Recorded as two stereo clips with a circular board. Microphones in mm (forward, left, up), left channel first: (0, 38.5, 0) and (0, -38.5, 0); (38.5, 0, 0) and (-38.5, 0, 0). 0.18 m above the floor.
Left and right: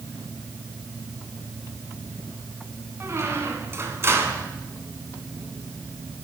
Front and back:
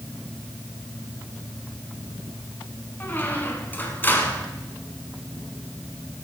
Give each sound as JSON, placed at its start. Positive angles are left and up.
{"t": 3.0, "sound": "a squeak", "azimuth_deg": -55, "distance_m": 1.4}